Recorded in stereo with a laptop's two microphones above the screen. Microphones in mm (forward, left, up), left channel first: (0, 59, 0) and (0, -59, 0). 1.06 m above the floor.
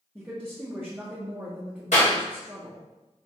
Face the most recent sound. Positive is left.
turn(degrees=80)